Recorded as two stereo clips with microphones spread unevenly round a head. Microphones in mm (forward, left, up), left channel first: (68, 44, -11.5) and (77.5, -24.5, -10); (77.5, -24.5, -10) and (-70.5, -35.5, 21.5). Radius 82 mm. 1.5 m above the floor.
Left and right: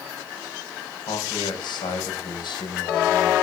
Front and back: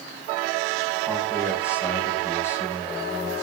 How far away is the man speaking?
About 8 m.